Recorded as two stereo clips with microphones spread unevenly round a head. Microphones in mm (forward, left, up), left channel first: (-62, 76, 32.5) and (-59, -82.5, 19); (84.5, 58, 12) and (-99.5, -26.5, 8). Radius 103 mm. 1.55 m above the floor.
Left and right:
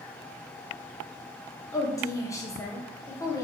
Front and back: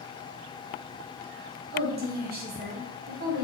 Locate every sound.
1.7 s a woman speaking: 160° left, 0.7 m